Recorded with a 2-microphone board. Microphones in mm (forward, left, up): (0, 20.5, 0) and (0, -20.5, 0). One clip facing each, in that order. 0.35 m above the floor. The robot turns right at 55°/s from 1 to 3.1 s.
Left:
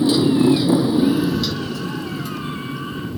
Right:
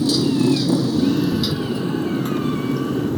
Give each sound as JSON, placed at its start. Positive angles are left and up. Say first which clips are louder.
{"t": 0.0, "sound": "a motorcycle", "louder": "left 3 dB", "side_deg": 25}